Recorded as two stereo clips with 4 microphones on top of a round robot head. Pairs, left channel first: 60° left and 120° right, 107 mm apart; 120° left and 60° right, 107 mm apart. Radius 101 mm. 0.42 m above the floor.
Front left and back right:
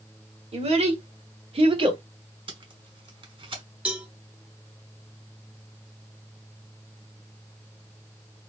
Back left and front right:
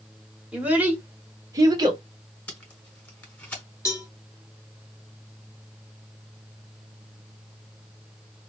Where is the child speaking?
140° right, 1.7 m; by 2.0 s 95° right, 1.2 m.